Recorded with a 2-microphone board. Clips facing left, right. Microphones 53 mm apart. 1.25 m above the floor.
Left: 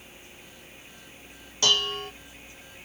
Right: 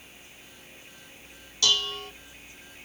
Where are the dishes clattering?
35° left (ahead or behind), 0.7 m.